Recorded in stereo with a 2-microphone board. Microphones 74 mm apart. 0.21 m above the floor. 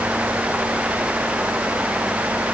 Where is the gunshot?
I don't hear a gunshot.